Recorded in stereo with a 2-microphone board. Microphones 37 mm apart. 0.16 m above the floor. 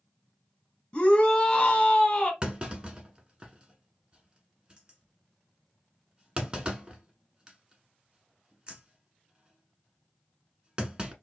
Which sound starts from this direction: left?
A shout, at 0.9 s.